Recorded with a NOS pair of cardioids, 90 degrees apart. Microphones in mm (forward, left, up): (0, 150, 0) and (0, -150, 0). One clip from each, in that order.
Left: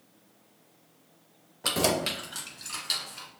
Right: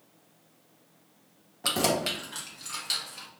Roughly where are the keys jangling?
Ahead.